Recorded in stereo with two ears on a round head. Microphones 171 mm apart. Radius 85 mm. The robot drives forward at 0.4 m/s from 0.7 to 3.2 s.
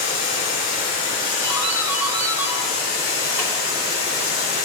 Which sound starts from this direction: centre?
A doorbell, at 1.4 s.